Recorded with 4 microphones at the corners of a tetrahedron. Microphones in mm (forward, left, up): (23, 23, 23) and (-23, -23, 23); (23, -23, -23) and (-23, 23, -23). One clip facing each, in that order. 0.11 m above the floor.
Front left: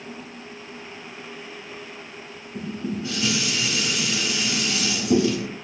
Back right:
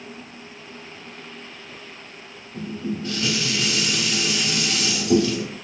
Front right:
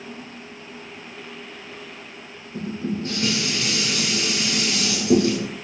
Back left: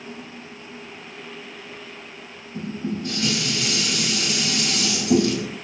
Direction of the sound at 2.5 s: 35° right.